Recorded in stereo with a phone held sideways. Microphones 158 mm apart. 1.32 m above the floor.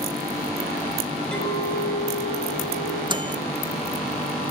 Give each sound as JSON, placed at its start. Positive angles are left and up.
{"t": 1.3, "sound": "a clink", "side_deg": 5, "distance_m": 6.0}
{"t": 3.1, "sound": "a microwave", "side_deg": -30, "distance_m": 0.8}